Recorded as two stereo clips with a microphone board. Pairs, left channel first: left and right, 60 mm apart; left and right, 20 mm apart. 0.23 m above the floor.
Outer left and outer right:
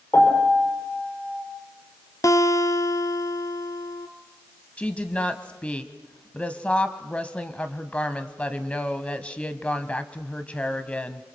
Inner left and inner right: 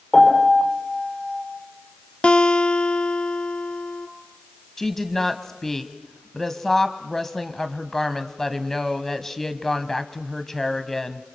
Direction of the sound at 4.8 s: 20° left (ahead or behind).